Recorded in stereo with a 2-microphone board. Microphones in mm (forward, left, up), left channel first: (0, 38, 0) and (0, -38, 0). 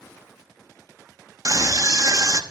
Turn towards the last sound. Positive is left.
turn(degrees=-45)  # may be behind; listen again after turning